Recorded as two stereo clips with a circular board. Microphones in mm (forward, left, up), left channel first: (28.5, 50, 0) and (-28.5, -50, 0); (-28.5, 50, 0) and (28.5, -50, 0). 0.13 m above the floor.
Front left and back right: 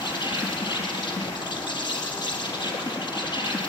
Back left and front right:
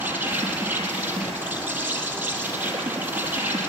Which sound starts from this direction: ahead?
An insect, at 0.0 s.